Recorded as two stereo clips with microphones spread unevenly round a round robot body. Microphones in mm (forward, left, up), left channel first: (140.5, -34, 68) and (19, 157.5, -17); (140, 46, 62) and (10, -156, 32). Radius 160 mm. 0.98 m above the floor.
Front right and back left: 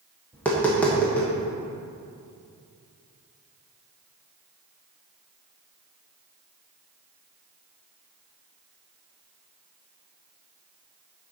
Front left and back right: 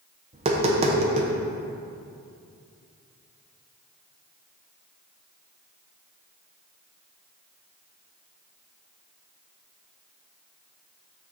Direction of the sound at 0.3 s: 165° right.